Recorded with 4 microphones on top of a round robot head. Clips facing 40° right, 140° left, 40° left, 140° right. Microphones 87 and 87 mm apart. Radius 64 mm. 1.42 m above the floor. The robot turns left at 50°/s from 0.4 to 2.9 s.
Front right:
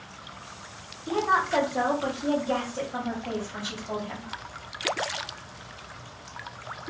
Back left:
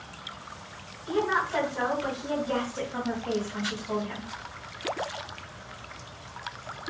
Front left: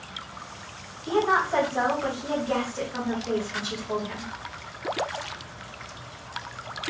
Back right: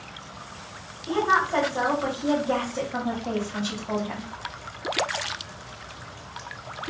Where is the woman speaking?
15° right, 1.8 m; by 4.3 s 105° right, 1.8 m.